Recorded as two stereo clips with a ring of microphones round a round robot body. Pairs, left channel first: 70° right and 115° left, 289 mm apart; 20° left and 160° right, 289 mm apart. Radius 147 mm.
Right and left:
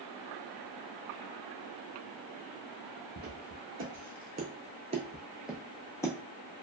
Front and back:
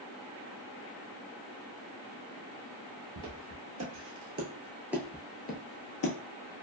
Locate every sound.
3.2 s footsteps: 170° left, 1.2 m; by 6.1 s 10° left, 0.8 m